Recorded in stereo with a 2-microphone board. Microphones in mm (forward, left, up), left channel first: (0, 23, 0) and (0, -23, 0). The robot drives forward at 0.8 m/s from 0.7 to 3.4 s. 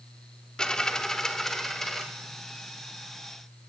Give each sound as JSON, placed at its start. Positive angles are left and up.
{"t": 0.6, "sound": "a dropped coin", "side_deg": 15, "distance_m": 0.6}